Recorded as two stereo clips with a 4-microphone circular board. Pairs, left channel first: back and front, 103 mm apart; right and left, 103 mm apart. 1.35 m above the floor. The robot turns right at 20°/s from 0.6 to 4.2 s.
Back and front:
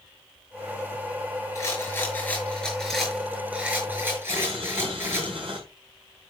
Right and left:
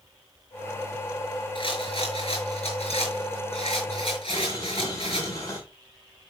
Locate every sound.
1.6 s a rattle: 120° right, 6 m; by 5.3 s 65° right, 6 m
4.3 s boiling: 35° right, 7 m